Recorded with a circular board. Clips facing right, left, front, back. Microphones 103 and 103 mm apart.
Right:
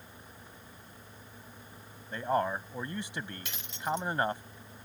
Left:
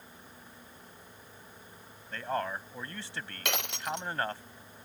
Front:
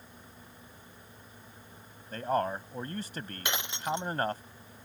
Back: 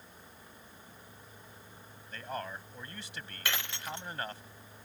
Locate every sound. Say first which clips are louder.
2.1 s a man speaking: right 4 dB, front 10 dB; 20° right
3.5 s breaking glass: left 1 dB, front 5 dB; 70° left